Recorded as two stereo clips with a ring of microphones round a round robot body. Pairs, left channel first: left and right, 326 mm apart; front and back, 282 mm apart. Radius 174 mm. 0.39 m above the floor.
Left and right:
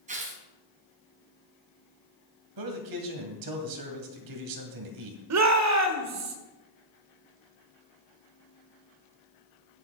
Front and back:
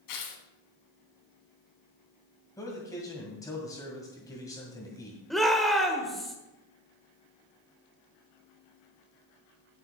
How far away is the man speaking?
About 2 m.